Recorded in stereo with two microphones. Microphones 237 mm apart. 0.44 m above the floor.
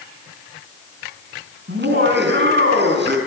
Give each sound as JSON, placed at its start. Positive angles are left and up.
{"t": 1.7, "sound": "laughter", "side_deg": -50, "distance_m": 5.5}